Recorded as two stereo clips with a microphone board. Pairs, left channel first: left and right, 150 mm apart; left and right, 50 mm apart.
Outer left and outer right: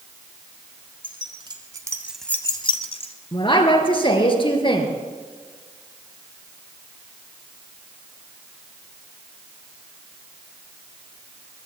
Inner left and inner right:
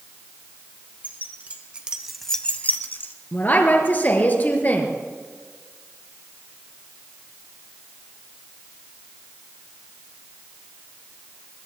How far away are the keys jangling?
About 2 m.